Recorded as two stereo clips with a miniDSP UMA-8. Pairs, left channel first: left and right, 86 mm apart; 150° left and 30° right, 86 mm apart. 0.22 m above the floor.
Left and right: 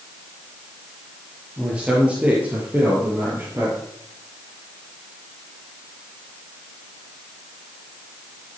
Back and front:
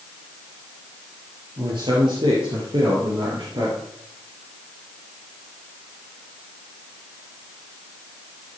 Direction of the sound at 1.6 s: 10° right.